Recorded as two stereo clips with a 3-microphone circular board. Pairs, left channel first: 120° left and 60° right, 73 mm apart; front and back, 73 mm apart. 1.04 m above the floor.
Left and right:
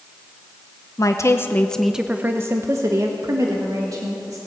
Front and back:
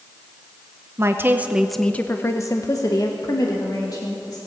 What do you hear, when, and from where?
1.0 s a woman speaking: 140° left, 0.9 m; by 4.4 s 30° right, 2.5 m